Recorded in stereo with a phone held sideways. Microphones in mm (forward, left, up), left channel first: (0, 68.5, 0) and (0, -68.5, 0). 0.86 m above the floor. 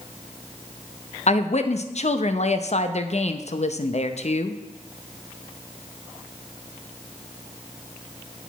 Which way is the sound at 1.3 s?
55° left (ahead or behind).